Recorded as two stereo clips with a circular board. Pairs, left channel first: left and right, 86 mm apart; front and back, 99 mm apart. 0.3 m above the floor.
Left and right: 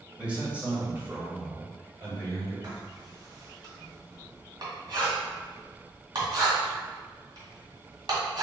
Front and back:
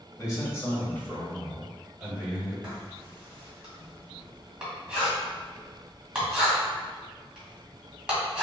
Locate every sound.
0.2 s a man speaking: 20° right, 1.9 m; by 2.5 s 115° right, 1.9 m
2.6 s writing: 100° right, 1.7 m